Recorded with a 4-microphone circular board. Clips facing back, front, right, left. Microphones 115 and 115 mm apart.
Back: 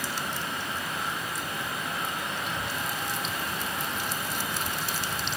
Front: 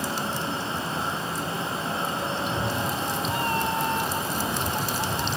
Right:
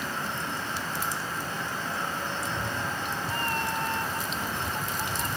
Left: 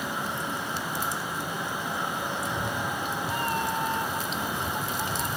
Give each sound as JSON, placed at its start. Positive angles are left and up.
{"t": 2.4, "sound": "a cat meowing", "azimuth_deg": 15}